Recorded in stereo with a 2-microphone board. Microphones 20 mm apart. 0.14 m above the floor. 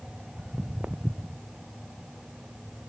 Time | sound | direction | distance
0.4 | footsteps | 80° right | ?